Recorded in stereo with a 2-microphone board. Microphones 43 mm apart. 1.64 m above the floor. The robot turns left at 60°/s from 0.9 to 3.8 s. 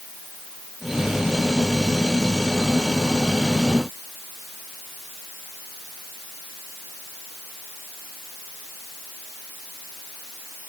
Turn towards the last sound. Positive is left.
No sound to turn to.